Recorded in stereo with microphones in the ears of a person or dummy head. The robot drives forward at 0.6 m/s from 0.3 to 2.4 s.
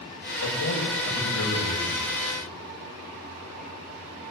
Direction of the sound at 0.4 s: 90° left.